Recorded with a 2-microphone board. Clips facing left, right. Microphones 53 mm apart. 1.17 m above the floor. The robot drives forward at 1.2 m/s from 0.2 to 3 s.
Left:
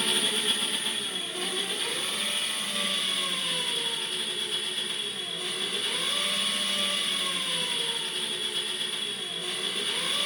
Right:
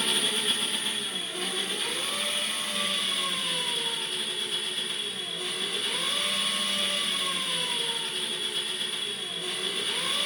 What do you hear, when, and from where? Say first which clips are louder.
0.0 s an engine running: even; 5° left (ahead or behind), 1.4 m; by 10.3 s centre (ahead or behind), 5 m